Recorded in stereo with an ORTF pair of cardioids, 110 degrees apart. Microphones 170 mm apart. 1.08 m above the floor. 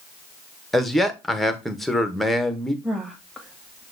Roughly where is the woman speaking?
Ahead.